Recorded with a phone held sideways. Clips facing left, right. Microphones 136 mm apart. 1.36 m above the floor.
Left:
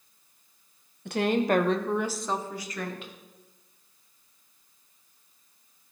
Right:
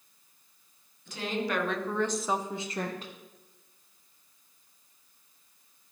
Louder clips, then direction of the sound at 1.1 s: Left 8 dB; 65° left (ahead or behind).